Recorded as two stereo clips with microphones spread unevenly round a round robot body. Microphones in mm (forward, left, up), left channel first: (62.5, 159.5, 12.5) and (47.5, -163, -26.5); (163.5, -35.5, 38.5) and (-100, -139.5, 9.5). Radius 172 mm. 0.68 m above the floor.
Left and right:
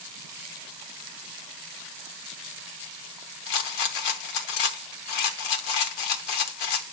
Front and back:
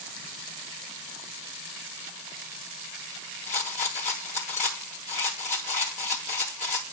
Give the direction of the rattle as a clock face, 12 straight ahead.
9 o'clock.